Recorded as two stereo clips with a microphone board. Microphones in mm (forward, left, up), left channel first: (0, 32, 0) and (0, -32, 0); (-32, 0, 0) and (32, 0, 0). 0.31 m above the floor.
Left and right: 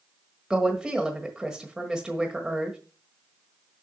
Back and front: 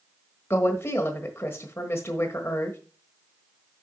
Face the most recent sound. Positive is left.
turn(degrees=-165)